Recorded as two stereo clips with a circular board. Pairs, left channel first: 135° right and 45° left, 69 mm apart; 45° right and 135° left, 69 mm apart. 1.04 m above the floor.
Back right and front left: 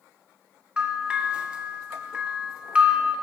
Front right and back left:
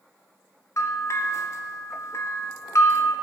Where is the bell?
25° right, 0.6 m.